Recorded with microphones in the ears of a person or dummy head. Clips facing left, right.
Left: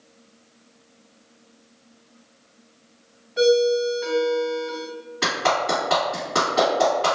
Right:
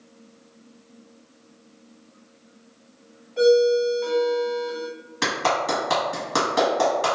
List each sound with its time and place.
3.4 s a ringtone: 5° left (ahead or behind), 1.3 m
5.2 s a clap: 50° right (ahead or behind), 1.5 m